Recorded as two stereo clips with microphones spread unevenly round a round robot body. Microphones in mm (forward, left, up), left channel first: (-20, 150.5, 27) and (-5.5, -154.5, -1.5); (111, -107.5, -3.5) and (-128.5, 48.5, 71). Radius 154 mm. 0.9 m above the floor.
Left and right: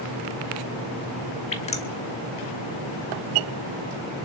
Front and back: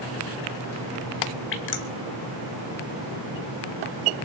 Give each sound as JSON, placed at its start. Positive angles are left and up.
{"t": 1.5, "sound": "dripping", "azimuth_deg": 20, "distance_m": 1.8}